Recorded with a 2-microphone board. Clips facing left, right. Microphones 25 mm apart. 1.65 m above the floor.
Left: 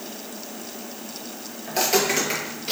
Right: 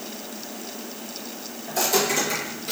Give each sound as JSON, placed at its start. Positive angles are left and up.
{"t": 1.7, "sound": "footsteps", "side_deg": 40, "distance_m": 2.0}